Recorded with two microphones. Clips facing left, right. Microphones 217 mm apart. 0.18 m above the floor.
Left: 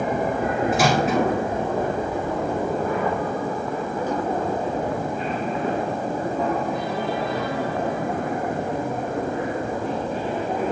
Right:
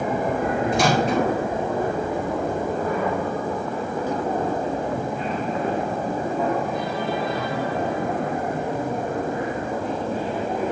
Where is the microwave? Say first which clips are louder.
Even; 5° left (ahead or behind), 2 m.